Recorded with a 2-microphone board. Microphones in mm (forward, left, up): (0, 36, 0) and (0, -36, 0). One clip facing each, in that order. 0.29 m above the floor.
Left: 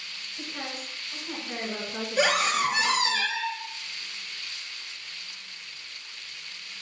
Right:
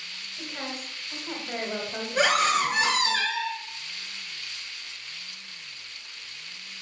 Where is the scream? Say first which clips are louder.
Right 2 dB; 35° right (ahead or behind), 4 m.